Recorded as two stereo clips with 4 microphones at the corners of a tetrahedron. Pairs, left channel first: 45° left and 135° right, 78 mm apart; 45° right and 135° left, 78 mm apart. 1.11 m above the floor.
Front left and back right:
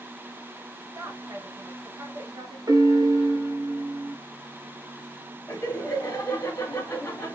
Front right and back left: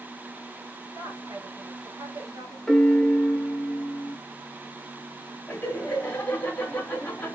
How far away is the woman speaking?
About 1.3 m.